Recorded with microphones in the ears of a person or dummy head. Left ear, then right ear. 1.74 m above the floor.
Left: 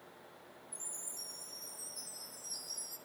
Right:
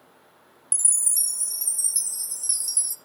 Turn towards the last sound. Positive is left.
turn(degrees=-50)  # may be behind; listen again after turning